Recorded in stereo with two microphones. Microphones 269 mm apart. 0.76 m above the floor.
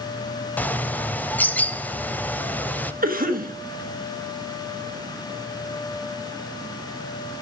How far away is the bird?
About 0.5 m.